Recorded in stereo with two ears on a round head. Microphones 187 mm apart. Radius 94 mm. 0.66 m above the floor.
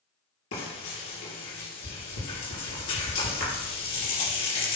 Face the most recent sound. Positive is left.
turn(degrees=75)  # may be behind; listen again after turning